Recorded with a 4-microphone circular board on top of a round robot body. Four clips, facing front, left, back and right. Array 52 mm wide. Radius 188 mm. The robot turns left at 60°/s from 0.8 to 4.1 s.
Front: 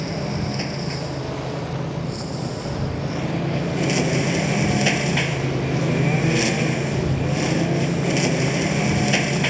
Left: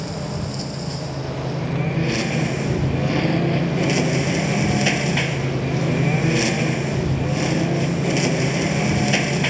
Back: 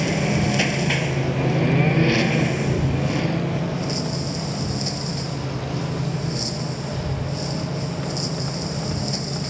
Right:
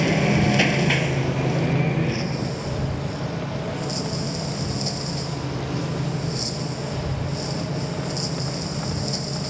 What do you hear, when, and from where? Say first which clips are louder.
0.0 s a lawn mower: right 8 dB, back 5 dB; 115° right; by 9.5 s 50° left